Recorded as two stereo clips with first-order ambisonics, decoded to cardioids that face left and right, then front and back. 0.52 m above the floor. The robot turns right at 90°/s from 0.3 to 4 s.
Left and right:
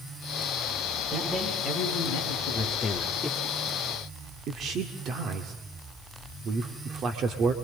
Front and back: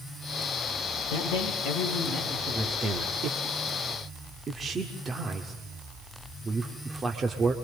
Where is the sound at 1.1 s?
10° right, 9 m; by 2.9 s 155° left, 9 m.